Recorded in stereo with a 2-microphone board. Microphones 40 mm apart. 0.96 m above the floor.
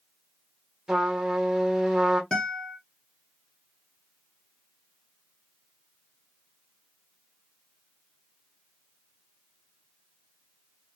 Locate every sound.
0.9 s a trumpet: 10° right (ahead or behind), 0.8 m
2.3 s a guitar: 20° left (ahead or behind), 1.0 m